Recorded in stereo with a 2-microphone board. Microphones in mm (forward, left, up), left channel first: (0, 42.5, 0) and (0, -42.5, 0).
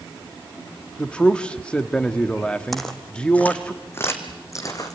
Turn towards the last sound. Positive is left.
turn(degrees=40)  # may be behind; listen again after turning